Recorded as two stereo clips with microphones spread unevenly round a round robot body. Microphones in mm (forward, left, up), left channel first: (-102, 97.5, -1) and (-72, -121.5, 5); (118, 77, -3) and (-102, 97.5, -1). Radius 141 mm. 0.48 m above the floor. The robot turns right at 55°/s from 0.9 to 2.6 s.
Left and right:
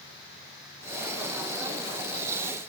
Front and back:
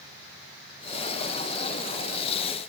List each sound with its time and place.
Only background noise.